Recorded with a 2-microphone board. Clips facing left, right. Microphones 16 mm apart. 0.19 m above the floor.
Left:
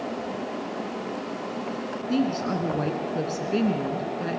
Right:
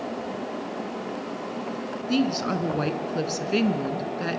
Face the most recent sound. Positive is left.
turn(degrees=-35)  # may be behind; listen again after turning